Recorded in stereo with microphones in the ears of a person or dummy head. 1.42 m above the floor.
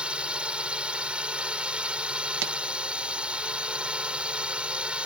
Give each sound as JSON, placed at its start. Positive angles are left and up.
{"t": 0.0, "sound": "a drone", "side_deg": -5}
{"t": 2.4, "sound": "a pop", "side_deg": -55}